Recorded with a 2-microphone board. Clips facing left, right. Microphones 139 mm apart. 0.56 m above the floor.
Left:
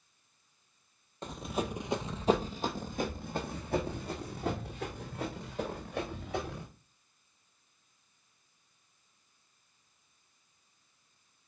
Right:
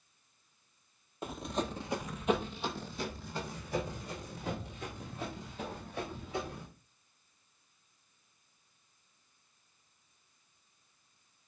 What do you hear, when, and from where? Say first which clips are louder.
1.2 s running footsteps: left 1 dB; 10° right (ahead or behind), 0.8 m; by 6.7 s 75° left (ahead or behind), 3.5 m